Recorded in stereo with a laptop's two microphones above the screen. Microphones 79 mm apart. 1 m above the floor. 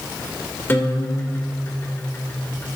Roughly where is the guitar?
Left.